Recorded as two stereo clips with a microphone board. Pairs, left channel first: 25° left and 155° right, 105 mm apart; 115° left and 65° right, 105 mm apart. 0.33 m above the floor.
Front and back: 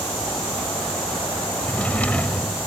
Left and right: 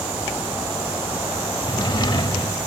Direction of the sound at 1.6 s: 95° left.